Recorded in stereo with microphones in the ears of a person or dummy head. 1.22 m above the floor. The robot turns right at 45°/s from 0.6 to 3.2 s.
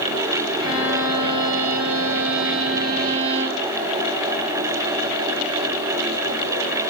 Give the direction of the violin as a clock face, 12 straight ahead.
5 o'clock.